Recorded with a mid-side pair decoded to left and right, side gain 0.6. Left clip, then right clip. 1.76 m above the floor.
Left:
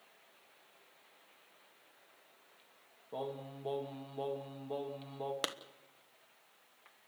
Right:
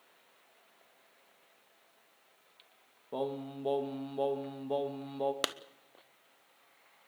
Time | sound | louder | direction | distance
3.1 | singing | right 5 dB | 30° right | 1.9 m
5.4 | a clap | even | 25° right | 1.1 m